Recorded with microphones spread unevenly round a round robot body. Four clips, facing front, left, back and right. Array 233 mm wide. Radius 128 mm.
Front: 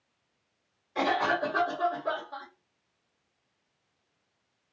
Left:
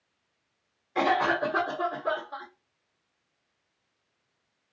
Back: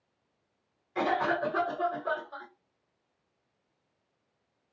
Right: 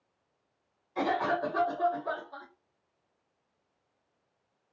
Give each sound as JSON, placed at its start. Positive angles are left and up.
{"t": 0.9, "sound": "a cough", "azimuth_deg": 85, "distance_m": 1.4}